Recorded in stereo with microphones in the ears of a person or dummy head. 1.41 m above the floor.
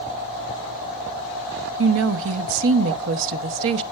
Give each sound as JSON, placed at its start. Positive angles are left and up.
{"t": 1.8, "sound": "a woman speaking", "side_deg": -75, "distance_m": 0.9}